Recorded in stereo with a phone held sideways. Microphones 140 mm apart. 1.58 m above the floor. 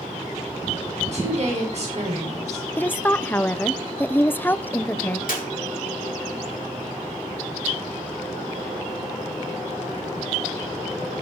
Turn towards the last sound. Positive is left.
turn(degrees=80)